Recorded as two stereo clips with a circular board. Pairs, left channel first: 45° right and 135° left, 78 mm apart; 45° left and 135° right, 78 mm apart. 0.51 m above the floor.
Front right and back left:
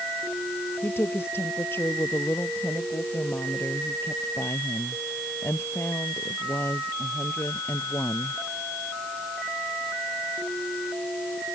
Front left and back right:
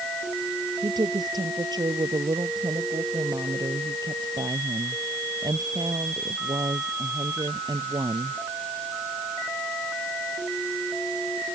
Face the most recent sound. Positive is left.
turn(degrees=-105)